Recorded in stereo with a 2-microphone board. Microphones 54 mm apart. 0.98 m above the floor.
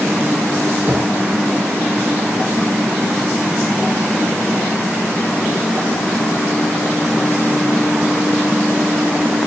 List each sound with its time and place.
0.9 s a thud: 35° right (ahead or behind), 5.5 m